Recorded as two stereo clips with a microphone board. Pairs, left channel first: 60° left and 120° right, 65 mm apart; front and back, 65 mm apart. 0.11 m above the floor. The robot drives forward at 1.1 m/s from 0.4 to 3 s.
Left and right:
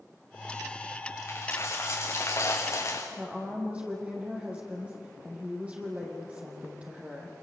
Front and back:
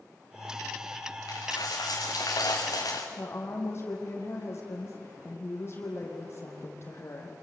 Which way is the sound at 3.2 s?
50° right.